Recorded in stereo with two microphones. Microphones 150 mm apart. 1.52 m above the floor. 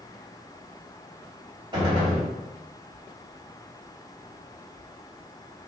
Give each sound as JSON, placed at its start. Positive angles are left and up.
{"t": 1.7, "sound": "a gunshot", "side_deg": -30, "distance_m": 1.7}